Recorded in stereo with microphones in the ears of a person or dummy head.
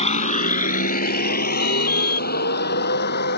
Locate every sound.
0.0 s a vehicle: 35° left (ahead or behind); by 3.4 s 50° left (ahead or behind)
1.6 s an alarm: 80° left